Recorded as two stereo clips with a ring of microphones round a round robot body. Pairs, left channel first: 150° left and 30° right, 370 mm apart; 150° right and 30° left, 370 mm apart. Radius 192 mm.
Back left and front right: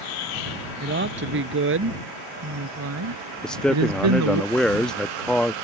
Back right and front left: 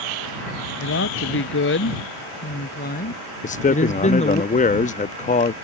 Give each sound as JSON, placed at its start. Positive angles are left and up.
{"t": 0.8, "sound": "a woman speaking", "azimuth_deg": -90}
{"t": 3.4, "sound": "a man speaking", "azimuth_deg": -125}